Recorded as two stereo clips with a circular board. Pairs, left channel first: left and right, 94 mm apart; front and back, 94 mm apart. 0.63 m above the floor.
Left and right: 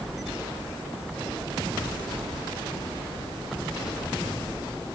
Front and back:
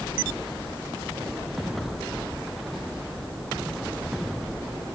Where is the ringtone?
No ringtone in this recording.